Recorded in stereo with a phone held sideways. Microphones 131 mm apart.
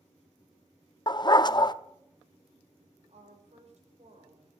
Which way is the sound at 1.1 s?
35° left (ahead or behind).